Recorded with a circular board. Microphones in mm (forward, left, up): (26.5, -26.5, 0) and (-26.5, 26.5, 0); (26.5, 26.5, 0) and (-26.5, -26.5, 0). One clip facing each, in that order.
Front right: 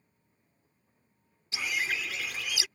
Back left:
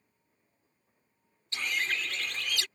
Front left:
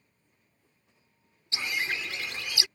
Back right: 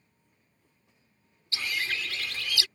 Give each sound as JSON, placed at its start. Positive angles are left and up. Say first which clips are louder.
{"t": 1.5, "sound": "a bird", "louder": "even, front left 1 dB", "azimuth_deg": 25}